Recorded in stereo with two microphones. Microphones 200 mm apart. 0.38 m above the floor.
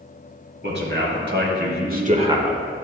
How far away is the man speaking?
About 3 m.